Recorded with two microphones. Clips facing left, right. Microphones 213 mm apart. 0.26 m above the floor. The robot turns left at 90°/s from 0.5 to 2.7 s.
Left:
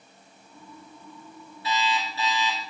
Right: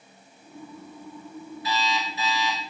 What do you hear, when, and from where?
1.6 s an alarm clock: 30° left, 1.7 m; by 2.6 s 55° right, 1.7 m